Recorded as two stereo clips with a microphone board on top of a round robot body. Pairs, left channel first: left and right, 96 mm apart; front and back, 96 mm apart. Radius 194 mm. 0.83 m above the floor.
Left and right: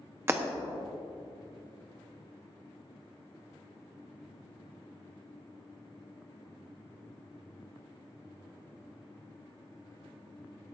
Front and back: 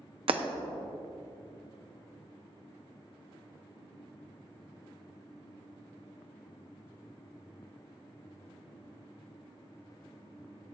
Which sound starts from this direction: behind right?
Breaking glass, at 0.3 s.